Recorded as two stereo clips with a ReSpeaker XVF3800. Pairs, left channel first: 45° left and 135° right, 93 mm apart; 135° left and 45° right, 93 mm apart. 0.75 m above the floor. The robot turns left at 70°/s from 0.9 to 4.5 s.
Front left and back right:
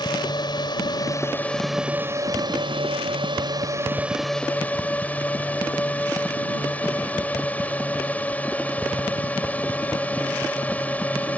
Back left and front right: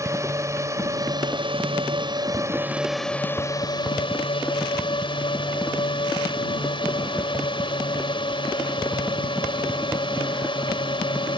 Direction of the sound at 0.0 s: 10° left.